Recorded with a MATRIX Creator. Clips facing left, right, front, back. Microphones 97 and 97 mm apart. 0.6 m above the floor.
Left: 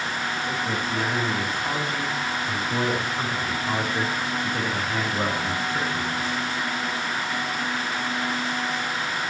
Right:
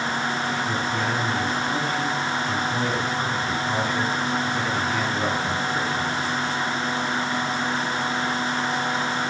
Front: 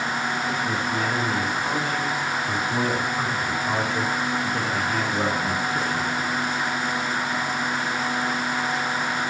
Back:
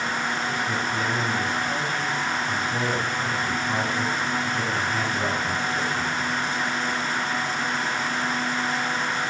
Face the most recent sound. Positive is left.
turn(degrees=40)